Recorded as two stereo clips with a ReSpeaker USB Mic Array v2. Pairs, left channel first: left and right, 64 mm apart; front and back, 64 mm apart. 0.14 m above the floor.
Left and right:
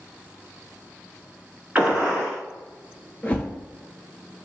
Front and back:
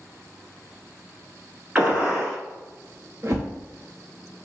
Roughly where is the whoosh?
Behind left.